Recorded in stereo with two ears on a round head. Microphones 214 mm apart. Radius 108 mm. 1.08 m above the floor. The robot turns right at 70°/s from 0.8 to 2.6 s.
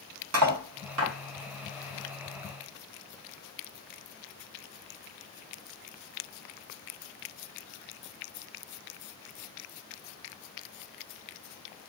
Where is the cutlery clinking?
75° right (ahead or behind), 0.8 m; by 1.1 s 55° right (ahead or behind), 0.8 m.